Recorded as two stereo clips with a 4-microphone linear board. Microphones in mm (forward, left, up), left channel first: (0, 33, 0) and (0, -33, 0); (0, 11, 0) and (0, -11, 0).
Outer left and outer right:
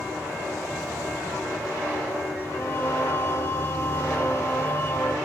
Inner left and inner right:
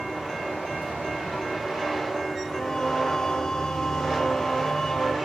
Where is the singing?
40° left (ahead or behind), 1.3 m.